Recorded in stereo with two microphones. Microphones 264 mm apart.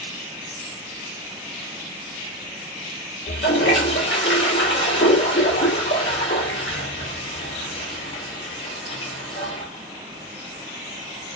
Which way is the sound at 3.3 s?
50° left (ahead or behind).